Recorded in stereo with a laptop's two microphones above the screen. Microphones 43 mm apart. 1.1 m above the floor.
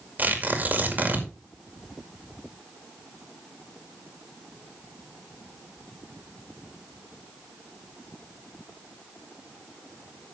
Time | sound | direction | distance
0.2 | tearing paper | 40° right (ahead or behind) | 2 m